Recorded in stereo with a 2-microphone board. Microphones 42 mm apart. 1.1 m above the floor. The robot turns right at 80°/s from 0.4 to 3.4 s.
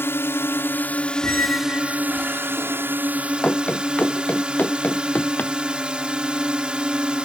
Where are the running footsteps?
30° left (ahead or behind); by 5.5 s 45° left (ahead or behind).